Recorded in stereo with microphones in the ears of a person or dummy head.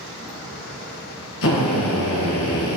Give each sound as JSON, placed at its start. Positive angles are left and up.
{"t": 1.4, "sound": "a drill", "side_deg": 70, "distance_m": 1.4}